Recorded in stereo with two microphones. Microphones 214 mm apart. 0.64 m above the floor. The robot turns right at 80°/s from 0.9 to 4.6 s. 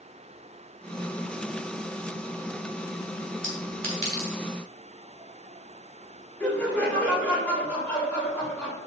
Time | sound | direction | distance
3.4 | a clink | 70° right (ahead or behind) | 3 m
6.4 | laughter | 5° left (ahead or behind) | 2.5 m